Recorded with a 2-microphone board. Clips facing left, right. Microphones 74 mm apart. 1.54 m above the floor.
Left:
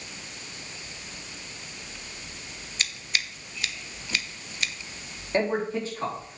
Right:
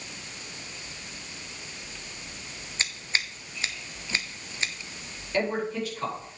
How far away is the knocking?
No knocking in this recording.